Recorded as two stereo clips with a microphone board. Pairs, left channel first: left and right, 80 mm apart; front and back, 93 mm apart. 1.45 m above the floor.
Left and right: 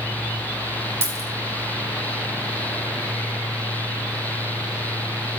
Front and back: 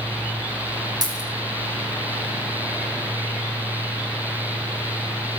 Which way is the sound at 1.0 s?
145° right.